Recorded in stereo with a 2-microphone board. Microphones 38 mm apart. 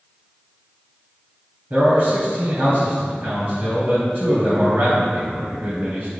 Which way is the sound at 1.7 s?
60° right (ahead or behind).